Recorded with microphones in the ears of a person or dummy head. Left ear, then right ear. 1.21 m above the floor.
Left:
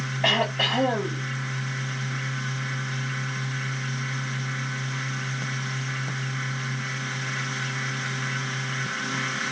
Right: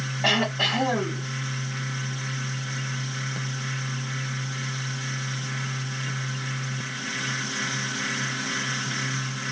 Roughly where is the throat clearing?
Left.